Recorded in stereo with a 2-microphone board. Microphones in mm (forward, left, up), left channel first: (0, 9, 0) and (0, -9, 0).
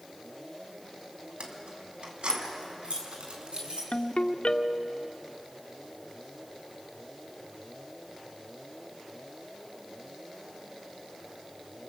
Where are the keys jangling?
75° right (ahead or behind), 3 m; by 3.8 s 65° right (ahead or behind), 4.5 m.